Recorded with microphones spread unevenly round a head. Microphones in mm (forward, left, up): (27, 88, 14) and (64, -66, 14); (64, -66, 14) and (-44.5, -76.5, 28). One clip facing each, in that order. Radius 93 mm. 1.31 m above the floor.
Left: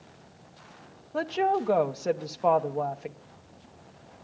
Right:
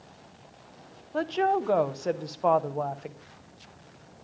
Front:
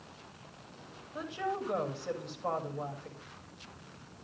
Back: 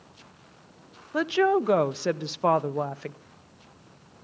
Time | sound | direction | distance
1.1 | a woman speaking | 170° right | 0.7 m